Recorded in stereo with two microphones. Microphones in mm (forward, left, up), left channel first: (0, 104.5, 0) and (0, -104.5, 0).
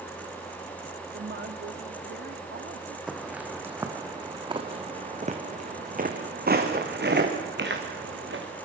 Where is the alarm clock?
No alarm clock in this recording.